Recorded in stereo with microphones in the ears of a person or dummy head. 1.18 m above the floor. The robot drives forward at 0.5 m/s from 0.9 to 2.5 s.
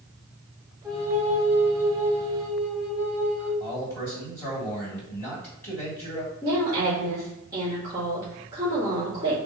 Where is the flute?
5° right (ahead or behind), 1.9 m.